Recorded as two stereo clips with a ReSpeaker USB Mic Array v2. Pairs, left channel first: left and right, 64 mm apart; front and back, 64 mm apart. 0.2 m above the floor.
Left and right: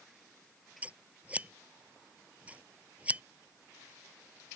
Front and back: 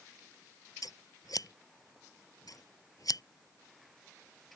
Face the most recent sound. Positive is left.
turn(degrees=-20)